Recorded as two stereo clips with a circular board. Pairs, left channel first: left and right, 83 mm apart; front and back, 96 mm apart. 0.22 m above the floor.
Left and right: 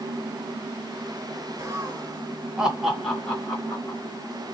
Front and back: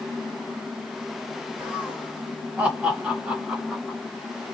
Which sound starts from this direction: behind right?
Laughter, at 1.6 s.